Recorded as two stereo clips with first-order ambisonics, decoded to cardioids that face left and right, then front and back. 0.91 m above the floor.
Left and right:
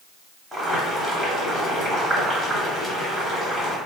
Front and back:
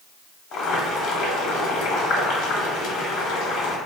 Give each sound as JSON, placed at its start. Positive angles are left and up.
{"t": 0.5, "sound": "boiling", "azimuth_deg": 0, "distance_m": 0.9}